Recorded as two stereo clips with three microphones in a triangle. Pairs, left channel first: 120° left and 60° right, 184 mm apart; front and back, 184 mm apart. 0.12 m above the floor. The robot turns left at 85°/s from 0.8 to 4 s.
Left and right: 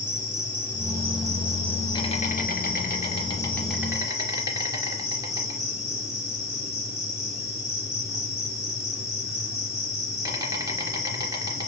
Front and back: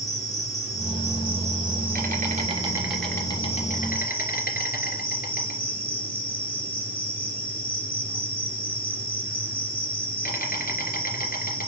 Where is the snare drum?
I don't hear a snare drum.